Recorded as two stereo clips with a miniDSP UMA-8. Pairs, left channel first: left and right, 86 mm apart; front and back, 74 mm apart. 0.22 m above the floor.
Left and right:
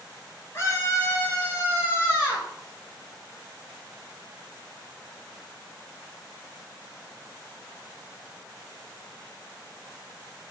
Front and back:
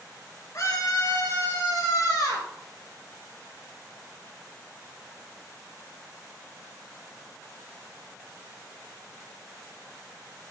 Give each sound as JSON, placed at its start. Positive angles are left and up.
{"t": 0.5, "sound": "a scream", "azimuth_deg": 35, "distance_m": 4.0}